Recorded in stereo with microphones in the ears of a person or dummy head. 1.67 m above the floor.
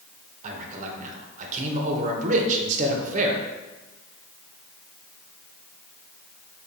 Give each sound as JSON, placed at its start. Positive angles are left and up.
{"t": 0.4, "sound": "a man speaking", "side_deg": -45, "distance_m": 0.9}